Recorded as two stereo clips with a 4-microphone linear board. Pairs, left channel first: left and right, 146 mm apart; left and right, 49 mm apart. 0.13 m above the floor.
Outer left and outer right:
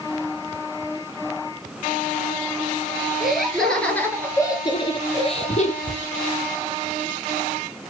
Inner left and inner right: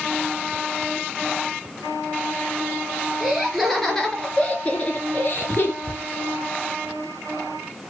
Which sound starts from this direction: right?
A cupboard door, at 5.8 s.